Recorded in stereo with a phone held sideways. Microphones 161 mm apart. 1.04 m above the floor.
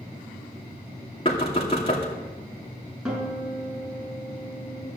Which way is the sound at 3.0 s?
5° right (ahead or behind).